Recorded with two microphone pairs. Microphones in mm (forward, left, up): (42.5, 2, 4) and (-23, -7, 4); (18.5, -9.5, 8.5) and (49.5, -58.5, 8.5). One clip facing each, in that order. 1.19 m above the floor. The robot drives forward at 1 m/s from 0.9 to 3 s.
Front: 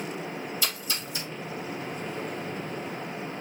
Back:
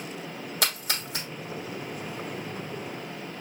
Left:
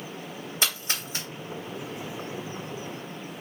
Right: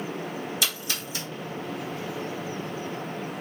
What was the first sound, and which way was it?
A splash, 175° left.